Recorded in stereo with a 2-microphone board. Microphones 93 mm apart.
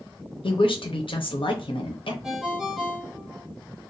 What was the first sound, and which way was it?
A woman speaking, 70° left (ahead or behind).